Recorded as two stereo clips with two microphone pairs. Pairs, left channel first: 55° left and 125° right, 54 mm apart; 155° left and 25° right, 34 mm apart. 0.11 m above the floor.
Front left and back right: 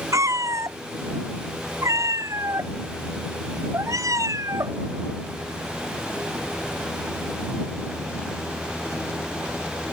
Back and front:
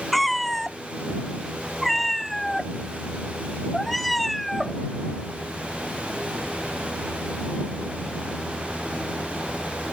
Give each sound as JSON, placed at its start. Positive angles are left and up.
{"t": 0.1, "sound": "a cat meowing", "azimuth_deg": -115}